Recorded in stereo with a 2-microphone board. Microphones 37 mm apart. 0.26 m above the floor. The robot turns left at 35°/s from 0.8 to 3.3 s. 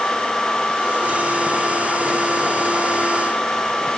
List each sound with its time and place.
Only background noise.